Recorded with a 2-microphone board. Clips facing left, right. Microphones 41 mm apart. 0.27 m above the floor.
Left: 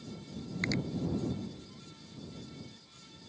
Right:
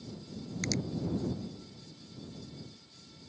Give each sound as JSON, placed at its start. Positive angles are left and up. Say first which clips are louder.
{"t": 0.6, "sound": "a finger snap", "louder": "left 2 dB", "side_deg": 25}